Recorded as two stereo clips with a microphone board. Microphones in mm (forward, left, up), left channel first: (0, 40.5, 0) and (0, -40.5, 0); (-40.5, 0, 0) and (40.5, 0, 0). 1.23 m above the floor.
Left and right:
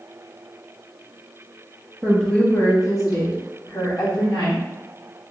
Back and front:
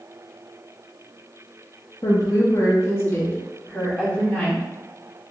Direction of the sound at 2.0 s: 175° right.